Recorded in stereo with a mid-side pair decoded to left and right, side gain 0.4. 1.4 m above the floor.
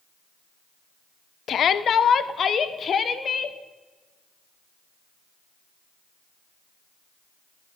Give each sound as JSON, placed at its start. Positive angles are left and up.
{"t": 1.5, "sound": "a shout", "azimuth_deg": 65, "distance_m": 0.8}